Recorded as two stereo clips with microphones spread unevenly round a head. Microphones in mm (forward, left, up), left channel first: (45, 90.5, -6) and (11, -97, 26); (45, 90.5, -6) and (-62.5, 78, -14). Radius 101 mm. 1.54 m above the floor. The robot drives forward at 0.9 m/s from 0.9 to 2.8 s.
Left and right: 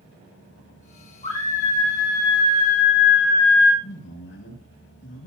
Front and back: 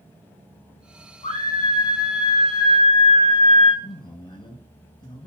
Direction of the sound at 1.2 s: 25° left.